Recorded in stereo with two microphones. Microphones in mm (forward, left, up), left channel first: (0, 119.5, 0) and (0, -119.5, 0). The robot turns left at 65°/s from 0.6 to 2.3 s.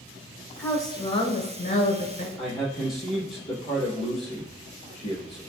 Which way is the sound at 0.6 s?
165° left.